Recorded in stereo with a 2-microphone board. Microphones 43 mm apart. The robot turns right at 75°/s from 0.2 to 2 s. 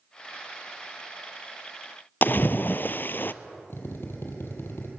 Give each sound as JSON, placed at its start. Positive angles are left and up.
{"t": 2.2, "sound": "a splash", "side_deg": 50, "distance_m": 0.6}
{"t": 3.7, "sound": "a drill", "side_deg": 65, "distance_m": 3.5}